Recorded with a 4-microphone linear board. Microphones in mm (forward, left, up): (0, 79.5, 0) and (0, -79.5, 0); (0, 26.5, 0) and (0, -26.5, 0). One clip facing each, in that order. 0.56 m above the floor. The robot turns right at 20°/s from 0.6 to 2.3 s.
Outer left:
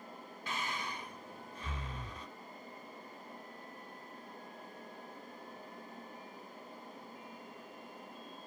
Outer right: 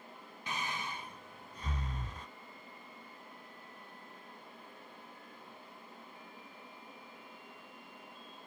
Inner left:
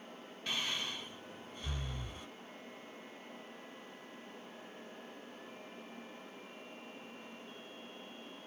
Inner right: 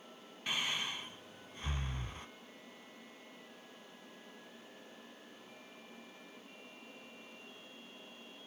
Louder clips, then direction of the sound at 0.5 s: Even, inner right 1 dB; 20° right (ahead or behind).